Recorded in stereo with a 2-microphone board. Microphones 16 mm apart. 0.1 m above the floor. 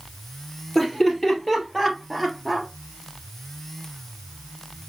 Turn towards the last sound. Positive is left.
turn(degrees=-10)  # may be behind; listen again after turning